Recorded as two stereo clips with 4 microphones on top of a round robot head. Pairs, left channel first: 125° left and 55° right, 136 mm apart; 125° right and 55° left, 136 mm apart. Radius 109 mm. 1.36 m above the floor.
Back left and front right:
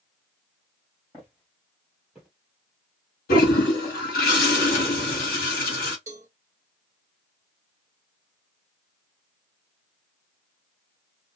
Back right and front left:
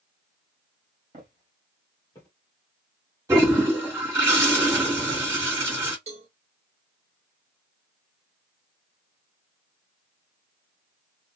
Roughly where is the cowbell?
Ahead.